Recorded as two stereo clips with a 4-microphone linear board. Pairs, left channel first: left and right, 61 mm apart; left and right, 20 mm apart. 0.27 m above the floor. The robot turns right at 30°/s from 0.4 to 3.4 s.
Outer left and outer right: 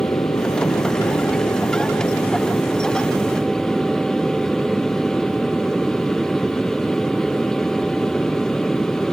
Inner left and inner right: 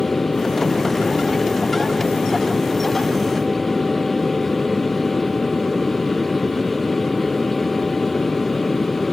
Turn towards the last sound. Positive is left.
turn(degrees=175)